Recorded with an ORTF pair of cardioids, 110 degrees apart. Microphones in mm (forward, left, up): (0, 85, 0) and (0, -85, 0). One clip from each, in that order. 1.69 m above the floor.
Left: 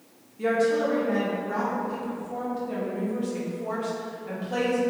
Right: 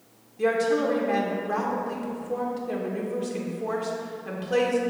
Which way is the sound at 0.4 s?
30° right.